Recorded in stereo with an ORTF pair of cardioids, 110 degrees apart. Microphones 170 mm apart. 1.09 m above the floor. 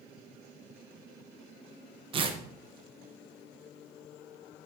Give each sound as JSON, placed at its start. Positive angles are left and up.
{"t": 2.1, "sound": "tearing paper", "azimuth_deg": -30, "distance_m": 0.5}